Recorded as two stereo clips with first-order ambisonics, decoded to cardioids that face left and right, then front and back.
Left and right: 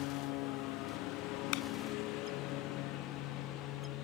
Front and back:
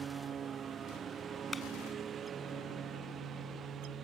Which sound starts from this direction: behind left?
A lawn mower, at 0.0 s.